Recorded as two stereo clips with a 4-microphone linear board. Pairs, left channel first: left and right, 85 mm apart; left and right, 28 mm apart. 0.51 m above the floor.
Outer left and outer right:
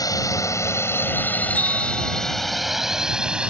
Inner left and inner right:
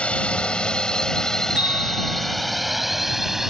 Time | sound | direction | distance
0.0 | a drone | 40° left (ahead or behind) | ?
1.6 | a bell | 45° right (ahead or behind) | ?